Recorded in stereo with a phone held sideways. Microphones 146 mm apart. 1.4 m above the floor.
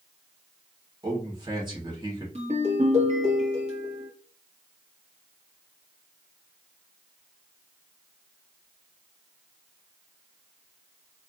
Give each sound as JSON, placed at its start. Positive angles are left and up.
{"t": 1.0, "sound": "a man speaking", "side_deg": -35, "distance_m": 1.3}
{"t": 2.4, "sound": "a ringtone", "side_deg": -50, "distance_m": 1.1}